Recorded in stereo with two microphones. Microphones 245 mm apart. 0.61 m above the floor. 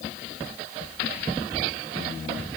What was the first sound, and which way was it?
Only background noise.